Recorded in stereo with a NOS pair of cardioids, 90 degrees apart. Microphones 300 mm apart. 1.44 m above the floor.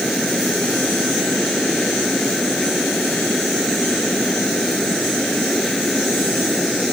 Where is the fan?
Straight ahead.